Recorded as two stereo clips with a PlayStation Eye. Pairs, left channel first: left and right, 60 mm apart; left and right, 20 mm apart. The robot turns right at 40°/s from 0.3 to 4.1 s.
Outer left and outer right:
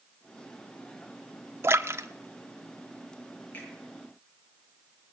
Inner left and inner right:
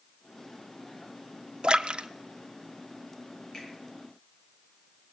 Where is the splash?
45° right (ahead or behind), 0.7 m; by 2.1 s 50° right (ahead or behind), 0.7 m.